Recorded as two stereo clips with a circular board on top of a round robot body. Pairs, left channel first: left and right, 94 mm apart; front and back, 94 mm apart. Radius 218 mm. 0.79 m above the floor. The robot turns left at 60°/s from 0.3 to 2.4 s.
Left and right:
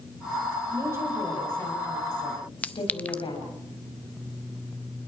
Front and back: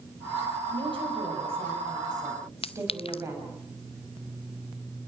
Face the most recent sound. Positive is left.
turn(degrees=15)